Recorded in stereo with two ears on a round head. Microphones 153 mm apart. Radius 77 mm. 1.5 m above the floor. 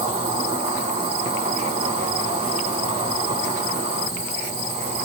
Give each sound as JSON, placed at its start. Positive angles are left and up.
{"t": 0.0, "sound": "an insect", "side_deg": -40, "distance_m": 1.0}